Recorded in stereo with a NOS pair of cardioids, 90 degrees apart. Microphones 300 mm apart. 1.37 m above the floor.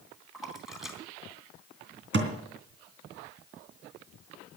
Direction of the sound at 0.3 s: Straight ahead.